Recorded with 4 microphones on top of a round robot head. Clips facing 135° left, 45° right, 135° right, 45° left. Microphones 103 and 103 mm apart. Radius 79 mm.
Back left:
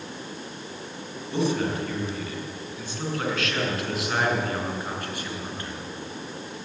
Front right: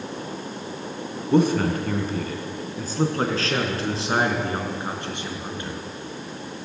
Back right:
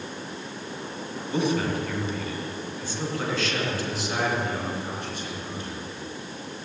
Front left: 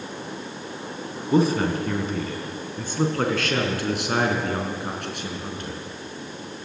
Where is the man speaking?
5° right, 4 m; by 5.8 s 25° left, 5.5 m.